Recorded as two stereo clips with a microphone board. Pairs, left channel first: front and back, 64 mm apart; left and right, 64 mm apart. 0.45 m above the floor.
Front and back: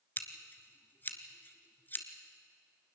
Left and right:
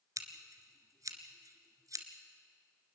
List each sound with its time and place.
0.2 s scissors: 60° right, 1.7 m